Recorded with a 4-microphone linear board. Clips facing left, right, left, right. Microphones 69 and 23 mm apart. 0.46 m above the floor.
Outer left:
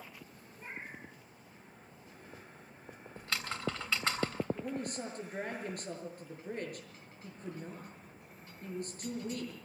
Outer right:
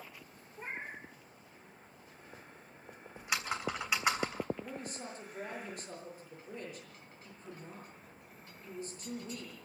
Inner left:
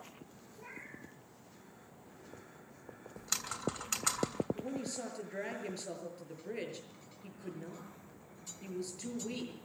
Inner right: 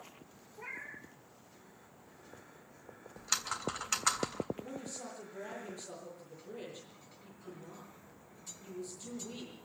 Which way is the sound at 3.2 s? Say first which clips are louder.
Outer right 2 dB, inner right 3 dB; 15° right (ahead or behind).